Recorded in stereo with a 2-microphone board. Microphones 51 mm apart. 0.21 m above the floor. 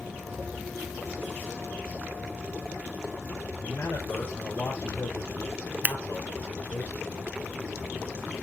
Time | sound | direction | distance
3.6 | a man speaking | 75° left (ahead or behind) | 5 m
5.8 | scissors | 35° right (ahead or behind) | 0.5 m